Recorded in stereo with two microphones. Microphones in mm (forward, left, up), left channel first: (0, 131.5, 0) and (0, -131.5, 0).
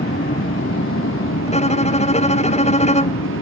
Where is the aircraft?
40° left (ahead or behind); by 3.4 s 65° left (ahead or behind).